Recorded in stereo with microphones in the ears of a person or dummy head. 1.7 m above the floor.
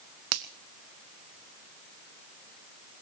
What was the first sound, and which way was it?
A finger snap, 75° right (ahead or behind).